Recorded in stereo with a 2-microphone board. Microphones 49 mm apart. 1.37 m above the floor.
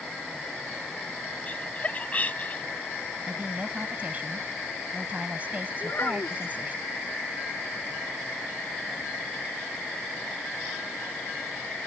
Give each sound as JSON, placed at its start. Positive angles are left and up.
{"t": 1.5, "sound": "laughter", "side_deg": 30}
{"t": 3.3, "sound": "a woman speaking", "side_deg": -30}
{"t": 5.8, "sound": "a child speaking", "side_deg": 55}